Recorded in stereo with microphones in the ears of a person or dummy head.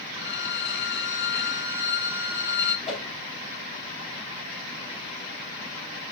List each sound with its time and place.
0.1 s a violin: 60° left (ahead or behind), 1.3 m
2.9 s a whoosh: centre (ahead or behind), 3 m